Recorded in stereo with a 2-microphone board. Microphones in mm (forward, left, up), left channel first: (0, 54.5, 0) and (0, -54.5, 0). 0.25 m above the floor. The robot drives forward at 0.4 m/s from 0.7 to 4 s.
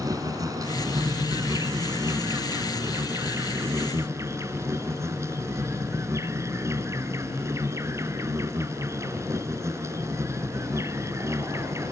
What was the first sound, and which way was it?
An insect, 35° right (ahead or behind).